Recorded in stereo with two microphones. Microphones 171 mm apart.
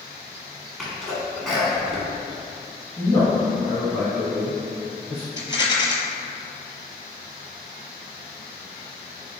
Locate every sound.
0.8 s a sneeze: centre (ahead or behind), 1.5 m
3.0 s a man speaking: centre (ahead or behind), 1.6 m
5.4 s a rattle: 25° left (ahead or behind), 0.7 m